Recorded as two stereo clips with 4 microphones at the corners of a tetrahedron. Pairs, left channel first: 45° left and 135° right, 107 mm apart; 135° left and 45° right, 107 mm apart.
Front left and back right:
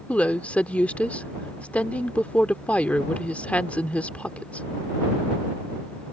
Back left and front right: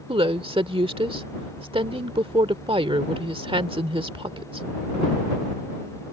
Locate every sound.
0.1 s a woman speaking: 30° right